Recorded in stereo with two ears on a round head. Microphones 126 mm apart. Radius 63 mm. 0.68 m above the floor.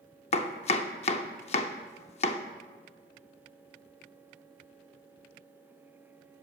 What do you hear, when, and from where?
0.3 s chopping: 45° left (ahead or behind), 0.6 m